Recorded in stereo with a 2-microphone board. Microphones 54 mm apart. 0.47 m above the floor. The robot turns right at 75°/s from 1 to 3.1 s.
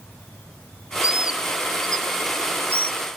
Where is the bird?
20° right (ahead or behind), 0.5 m; by 3.0 s 25° left (ahead or behind), 0.5 m.